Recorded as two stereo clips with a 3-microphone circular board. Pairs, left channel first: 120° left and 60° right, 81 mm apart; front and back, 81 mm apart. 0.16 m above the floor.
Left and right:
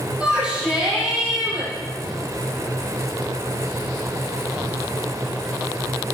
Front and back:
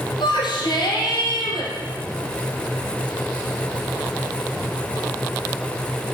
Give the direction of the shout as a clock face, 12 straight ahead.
11 o'clock.